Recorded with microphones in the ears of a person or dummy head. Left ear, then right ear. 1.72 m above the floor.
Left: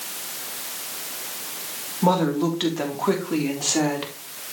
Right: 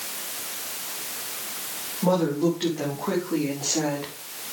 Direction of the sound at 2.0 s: 75° left (ahead or behind).